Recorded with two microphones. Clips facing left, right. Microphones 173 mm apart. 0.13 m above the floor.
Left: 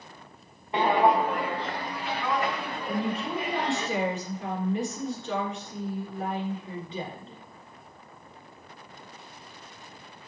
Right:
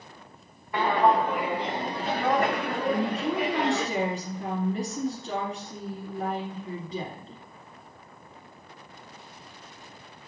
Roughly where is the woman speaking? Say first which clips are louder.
Right 3 dB; right.